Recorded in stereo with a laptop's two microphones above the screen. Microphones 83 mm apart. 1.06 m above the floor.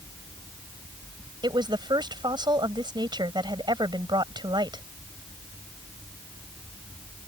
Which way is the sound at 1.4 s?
65° right (ahead or behind).